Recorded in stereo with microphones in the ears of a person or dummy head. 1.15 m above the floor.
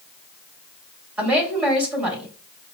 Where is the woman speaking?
5° right (ahead or behind), 2.5 m.